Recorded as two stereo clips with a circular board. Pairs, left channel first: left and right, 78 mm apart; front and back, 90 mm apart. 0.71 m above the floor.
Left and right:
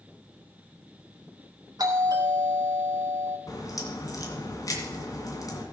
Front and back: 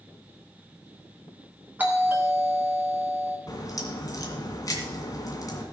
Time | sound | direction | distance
1.8 | a doorbell | 110° right | 2 m
3.5 | a crack | 50° left | 2.5 m